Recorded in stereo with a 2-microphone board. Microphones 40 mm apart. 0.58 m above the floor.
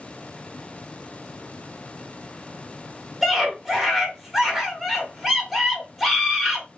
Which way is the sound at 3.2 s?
5° right (ahead or behind).